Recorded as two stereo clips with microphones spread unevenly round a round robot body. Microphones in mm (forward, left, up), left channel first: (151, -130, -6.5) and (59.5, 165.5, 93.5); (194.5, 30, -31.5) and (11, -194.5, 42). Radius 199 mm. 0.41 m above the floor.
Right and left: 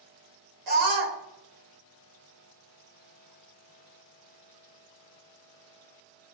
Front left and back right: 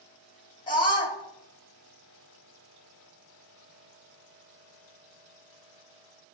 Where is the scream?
120° left, 1.9 m.